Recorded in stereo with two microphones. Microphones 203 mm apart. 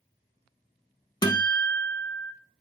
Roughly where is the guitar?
Left.